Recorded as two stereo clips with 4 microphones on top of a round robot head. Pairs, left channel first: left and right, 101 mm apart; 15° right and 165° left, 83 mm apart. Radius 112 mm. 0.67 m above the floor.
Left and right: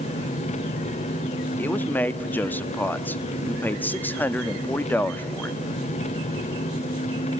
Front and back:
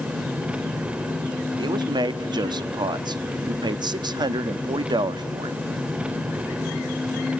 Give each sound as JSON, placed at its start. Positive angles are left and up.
{"t": 0.0, "sound": "an engine running", "azimuth_deg": 90, "distance_m": 0.8}
{"t": 1.6, "sound": "a man speaking", "azimuth_deg": 160, "distance_m": 1.0}